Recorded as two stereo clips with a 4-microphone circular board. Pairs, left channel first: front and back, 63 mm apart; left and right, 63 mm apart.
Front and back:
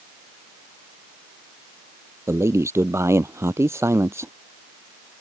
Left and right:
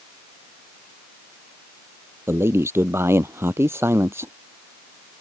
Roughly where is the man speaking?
Behind right.